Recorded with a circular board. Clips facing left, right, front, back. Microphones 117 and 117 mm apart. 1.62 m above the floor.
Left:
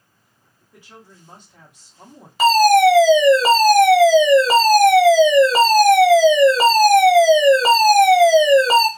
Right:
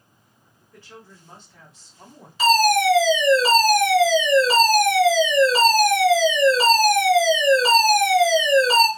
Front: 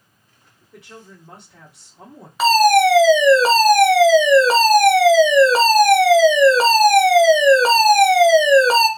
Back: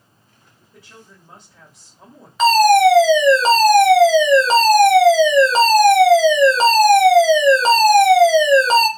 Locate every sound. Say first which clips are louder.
0.7 s a woman speaking: even, front 4 dB; 15° left, 1.3 m
2.4 s a fire alarm: left 6 dB, back 2 dB; 85° left, 1.0 m